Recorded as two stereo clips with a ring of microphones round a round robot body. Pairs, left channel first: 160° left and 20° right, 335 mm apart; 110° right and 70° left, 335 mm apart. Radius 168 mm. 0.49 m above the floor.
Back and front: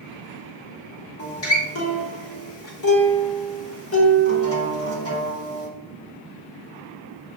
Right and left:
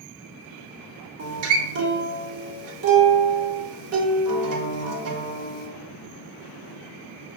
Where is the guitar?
110° left, 0.9 m.